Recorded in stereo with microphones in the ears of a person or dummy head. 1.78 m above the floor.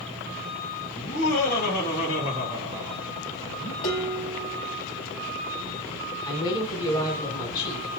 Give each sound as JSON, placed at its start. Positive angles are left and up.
{"t": 0.9, "sound": "laughter", "side_deg": 55, "distance_m": 2.5}
{"t": 3.8, "sound": "dishes clattering", "side_deg": 55, "distance_m": 2.5}
{"t": 6.2, "sound": "a woman speaking", "side_deg": 20, "distance_m": 2.0}